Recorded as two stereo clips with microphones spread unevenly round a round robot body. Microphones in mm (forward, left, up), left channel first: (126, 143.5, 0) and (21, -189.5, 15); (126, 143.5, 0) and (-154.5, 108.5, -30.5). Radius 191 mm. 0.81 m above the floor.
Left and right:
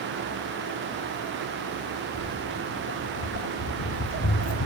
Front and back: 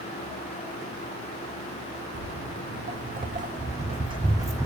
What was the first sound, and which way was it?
Footsteps, 135° left.